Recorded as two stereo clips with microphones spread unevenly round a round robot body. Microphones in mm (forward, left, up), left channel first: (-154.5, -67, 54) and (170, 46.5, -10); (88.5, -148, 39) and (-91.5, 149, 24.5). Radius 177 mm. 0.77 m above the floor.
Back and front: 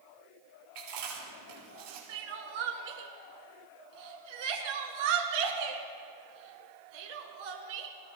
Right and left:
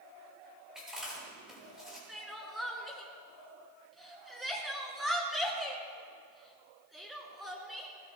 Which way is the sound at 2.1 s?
30° left.